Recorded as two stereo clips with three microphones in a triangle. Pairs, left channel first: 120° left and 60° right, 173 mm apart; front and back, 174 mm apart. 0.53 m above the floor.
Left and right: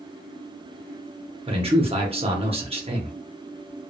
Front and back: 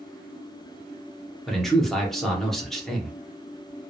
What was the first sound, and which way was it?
A man speaking, 85° right.